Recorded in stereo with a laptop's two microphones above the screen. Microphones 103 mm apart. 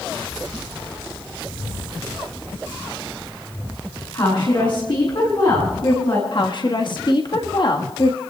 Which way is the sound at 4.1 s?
50° left (ahead or behind).